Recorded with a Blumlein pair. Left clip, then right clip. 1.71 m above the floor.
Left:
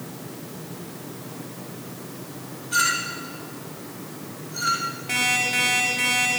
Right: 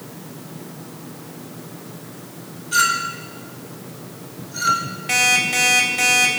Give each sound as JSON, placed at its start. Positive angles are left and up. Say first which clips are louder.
{"t": 2.7, "sound": "a clink", "louder": "right 4 dB", "azimuth_deg": -20, "distance_m": 3.0}
{"t": 5.1, "sound": "an alarm clock", "louder": "right 5 dB", "azimuth_deg": -40, "distance_m": 4.0}